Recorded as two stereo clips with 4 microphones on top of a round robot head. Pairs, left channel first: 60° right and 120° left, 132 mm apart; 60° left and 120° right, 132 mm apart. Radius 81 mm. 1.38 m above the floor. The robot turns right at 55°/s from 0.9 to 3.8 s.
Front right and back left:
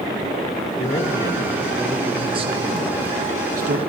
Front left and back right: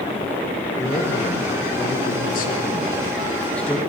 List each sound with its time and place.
0.8 s a man speaking: 10° right, 1.0 m; by 3.8 s 150° left, 1.0 m